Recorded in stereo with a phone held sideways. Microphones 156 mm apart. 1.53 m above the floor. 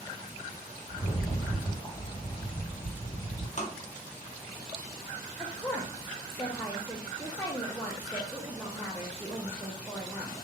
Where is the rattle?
30° left (ahead or behind), 1.9 m.